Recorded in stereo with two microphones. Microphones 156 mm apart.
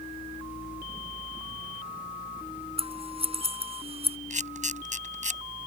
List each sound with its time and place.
2.8 s scissors: 40° right (ahead or behind)
4.3 s a camera shutter: 50° right (ahead or behind)